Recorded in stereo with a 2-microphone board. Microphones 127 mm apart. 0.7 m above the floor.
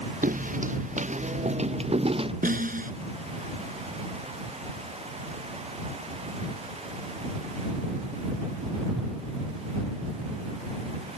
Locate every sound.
0.2 s footsteps: 75° right (ahead or behind); by 2.3 s 45° right (ahead or behind)
2.4 s a snare drum: 85° right